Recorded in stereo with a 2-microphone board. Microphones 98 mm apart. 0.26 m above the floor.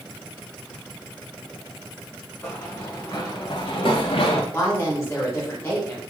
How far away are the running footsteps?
About 1.5 m.